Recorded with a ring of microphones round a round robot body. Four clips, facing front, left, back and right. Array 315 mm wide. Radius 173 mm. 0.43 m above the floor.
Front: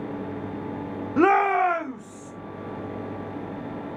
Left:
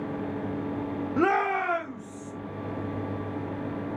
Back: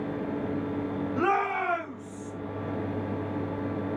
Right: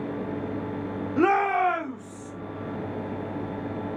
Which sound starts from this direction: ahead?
A shout, at 1.2 s.